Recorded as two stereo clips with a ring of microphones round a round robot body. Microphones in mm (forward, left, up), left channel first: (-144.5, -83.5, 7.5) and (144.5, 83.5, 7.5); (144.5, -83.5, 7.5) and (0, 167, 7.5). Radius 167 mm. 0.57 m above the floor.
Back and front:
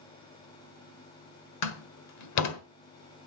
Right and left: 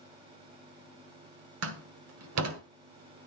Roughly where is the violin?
I don't hear a violin.